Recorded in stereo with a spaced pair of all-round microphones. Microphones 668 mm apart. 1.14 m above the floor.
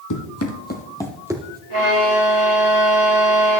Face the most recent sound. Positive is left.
turn(degrees=45)  # may be behind; listen again after turning